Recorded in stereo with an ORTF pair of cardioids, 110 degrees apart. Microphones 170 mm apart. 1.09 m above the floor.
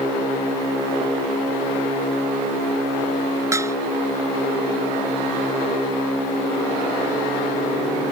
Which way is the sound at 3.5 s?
15° right.